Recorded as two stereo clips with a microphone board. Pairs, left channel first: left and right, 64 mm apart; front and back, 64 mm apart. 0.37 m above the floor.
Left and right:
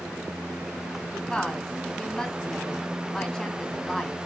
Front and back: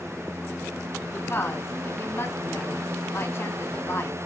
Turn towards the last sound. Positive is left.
turn(degrees=15)